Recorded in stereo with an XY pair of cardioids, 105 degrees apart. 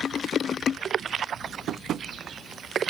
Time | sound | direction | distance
1.7 | tapping | 65° right | 0.6 m